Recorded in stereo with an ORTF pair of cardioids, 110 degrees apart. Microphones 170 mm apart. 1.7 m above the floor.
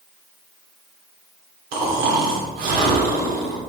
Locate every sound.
1.7 s snoring: 65° right, 1.6 m